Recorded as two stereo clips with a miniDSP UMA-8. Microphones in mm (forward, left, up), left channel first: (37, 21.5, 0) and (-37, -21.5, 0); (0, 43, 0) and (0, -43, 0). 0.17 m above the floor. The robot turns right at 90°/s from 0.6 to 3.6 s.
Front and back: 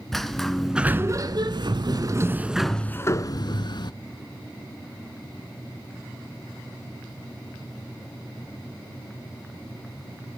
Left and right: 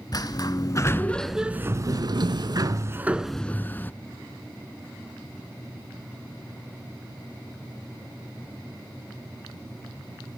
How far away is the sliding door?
About 0.6 m.